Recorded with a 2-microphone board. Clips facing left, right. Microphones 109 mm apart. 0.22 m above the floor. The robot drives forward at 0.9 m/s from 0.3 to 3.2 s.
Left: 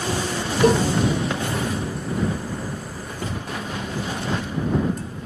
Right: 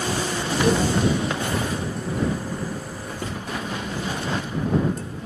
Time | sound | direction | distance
0.6 | a cowbell | 40° left (ahead or behind) | 9 m